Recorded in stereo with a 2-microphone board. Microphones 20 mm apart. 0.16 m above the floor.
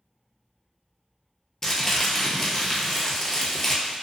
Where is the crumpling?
20° left (ahead or behind), 0.8 m.